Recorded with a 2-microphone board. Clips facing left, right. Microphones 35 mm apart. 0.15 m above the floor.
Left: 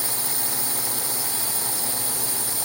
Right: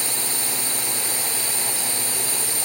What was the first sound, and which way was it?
A drone, 60° right (ahead or behind).